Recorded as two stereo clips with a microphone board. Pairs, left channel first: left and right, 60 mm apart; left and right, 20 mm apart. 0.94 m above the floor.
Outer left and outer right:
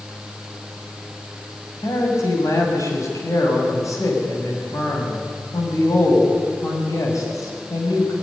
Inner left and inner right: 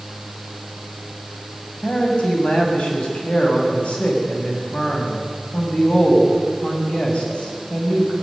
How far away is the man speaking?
About 6.5 m.